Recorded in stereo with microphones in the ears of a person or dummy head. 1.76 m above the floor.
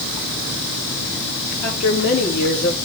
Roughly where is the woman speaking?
Left.